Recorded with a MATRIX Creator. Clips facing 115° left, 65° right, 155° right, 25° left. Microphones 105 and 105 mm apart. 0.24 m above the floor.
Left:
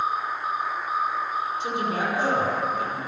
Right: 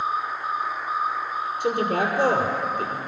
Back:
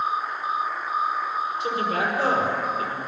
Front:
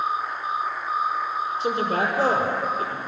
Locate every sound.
1.6 s a man speaking: 35° right, 6 m